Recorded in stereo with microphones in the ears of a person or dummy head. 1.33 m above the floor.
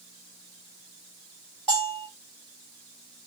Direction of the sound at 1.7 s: Centre (ahead or behind).